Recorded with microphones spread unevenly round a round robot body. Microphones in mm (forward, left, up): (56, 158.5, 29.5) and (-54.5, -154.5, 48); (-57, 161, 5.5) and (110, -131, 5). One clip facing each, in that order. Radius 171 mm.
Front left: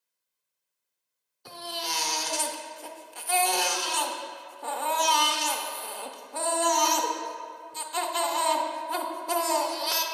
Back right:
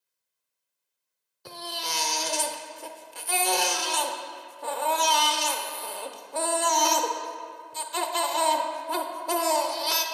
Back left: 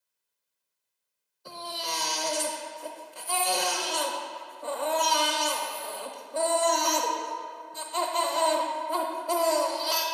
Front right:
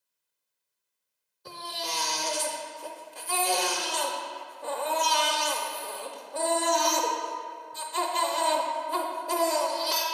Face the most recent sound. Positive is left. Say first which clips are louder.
# even, back left 1 dB
turn(degrees=-130)